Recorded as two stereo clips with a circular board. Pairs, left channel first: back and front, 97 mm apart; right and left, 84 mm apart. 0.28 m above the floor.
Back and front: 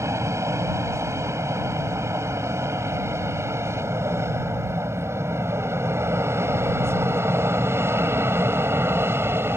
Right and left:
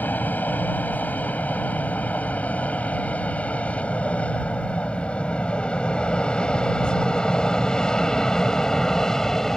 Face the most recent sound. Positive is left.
turn(degrees=-15)